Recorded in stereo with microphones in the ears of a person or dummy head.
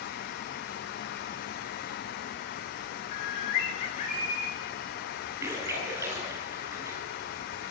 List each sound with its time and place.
3.1 s a bird: 35° left (ahead or behind), 1.8 m
5.4 s a splash: 15° right (ahead or behind), 8.5 m